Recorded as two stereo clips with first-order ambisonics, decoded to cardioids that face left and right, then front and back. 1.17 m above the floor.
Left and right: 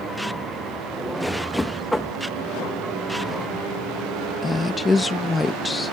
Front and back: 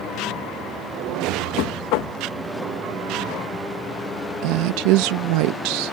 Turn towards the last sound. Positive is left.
turn(degrees=170)